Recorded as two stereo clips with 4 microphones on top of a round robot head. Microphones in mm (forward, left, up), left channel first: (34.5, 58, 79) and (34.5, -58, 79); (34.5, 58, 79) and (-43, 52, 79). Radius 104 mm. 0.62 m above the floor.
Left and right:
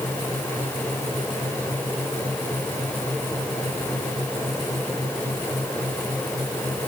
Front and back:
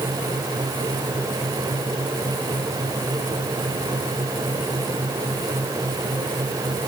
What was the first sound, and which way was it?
Only background noise.